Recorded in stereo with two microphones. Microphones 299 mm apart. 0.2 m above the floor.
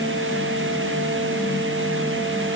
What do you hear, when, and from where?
Only background noise.